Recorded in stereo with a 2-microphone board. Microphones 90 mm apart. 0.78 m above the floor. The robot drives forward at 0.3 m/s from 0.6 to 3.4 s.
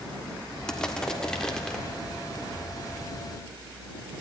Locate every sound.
0.7 s crushing: 5° left (ahead or behind), 1.5 m